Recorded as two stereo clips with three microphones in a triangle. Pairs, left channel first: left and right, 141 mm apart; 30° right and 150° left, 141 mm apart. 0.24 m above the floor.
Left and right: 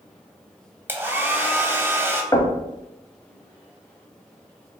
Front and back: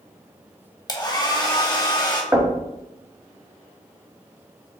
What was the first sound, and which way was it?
A hair dryer, 35° right.